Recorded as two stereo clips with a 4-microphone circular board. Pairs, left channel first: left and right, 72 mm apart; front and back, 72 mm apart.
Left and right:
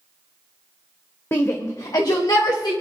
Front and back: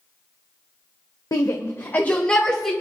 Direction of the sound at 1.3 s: 35° left.